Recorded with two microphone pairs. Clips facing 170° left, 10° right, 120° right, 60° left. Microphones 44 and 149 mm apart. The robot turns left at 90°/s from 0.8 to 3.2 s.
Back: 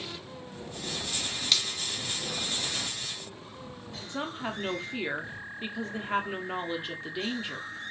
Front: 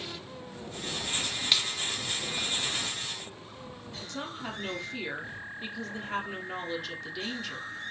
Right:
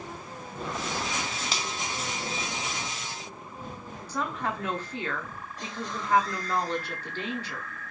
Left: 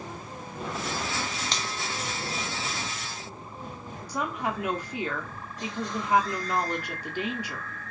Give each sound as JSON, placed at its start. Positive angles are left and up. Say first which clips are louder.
{"t": 1.5, "sound": "a finger snap", "louder": "front 1 dB, even", "azimuth_deg": -50, "distance_m": 0.6}
{"t": 4.1, "sound": "a woman speaking", "louder": "back 4 dB, left 1 dB", "azimuth_deg": 130, "distance_m": 0.8}